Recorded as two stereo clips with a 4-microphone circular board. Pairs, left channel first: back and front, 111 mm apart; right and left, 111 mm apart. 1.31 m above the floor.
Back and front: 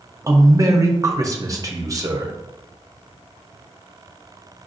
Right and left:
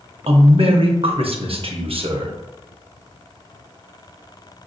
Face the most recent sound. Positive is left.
turn(degrees=60)